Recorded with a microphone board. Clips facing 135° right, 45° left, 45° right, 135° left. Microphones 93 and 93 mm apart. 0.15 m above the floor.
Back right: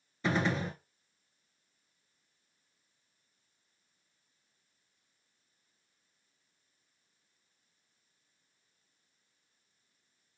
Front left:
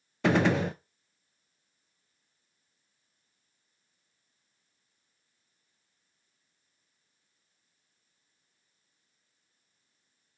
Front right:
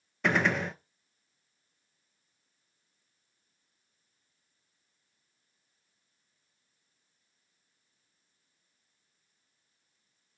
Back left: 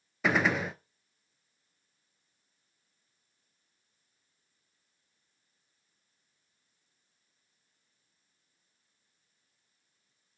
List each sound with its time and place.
0.2 s a gunshot: 45° left, 0.5 m